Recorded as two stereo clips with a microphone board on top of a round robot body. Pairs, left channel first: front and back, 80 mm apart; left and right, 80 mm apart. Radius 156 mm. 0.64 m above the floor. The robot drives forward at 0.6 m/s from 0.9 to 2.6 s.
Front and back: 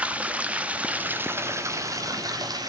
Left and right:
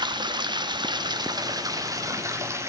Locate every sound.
0.0 s running water: 110° right, 1.1 m; by 2.7 s 145° right, 1.7 m